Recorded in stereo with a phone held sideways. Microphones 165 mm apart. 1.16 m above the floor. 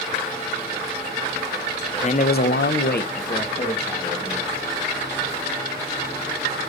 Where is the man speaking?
40° left (ahead or behind), 0.7 m; by 4.5 s 30° left (ahead or behind), 2 m.